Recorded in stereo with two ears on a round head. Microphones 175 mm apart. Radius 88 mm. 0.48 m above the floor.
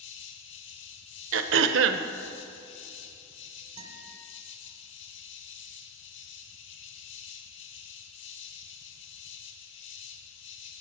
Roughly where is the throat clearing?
Right.